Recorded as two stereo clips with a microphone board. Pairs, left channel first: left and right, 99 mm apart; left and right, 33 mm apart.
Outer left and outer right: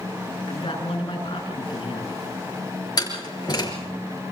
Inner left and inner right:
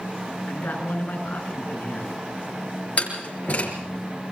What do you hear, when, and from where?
0.5 s a man speaking: 60° left (ahead or behind), 6.5 m
3.0 s a door slam: 40° left (ahead or behind), 6.5 m